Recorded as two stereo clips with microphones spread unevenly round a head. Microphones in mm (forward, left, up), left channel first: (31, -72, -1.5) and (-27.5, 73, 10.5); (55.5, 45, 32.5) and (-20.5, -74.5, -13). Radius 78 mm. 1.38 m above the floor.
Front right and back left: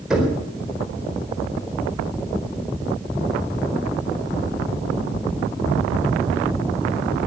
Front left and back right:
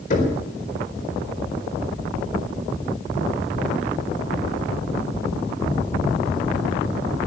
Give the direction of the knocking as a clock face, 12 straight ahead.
11 o'clock.